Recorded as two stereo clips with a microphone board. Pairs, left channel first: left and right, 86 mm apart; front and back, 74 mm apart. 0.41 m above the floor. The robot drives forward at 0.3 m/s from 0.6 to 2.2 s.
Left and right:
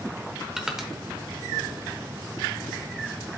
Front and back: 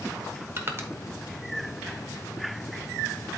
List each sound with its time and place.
0.6 s crushing: 175° right, 1.0 m